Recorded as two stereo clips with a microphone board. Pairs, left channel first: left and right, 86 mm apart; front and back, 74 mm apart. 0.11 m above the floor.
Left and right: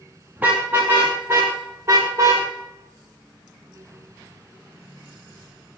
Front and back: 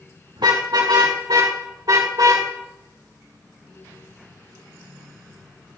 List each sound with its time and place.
0.4 s a car horn: 160° right, 6 m; by 2.5 s 145° right, 6.5 m